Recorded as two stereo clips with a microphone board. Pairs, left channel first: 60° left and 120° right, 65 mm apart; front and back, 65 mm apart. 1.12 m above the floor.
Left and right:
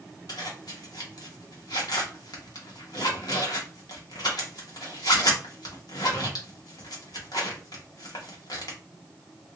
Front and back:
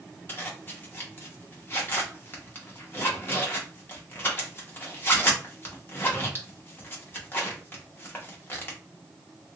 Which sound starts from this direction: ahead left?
A zipper, at 0.3 s.